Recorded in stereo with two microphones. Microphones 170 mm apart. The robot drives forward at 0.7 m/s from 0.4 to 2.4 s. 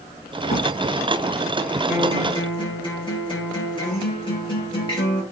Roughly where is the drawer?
Left.